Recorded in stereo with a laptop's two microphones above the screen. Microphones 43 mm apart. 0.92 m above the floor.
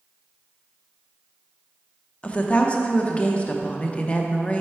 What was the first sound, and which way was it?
A woman speaking, 30° left (ahead or behind).